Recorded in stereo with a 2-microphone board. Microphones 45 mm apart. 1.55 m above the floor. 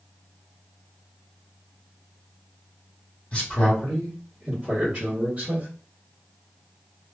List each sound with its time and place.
3.3 s a man speaking: 30° left (ahead or behind), 1.2 m; by 5.7 s 35° right (ahead or behind), 1.6 m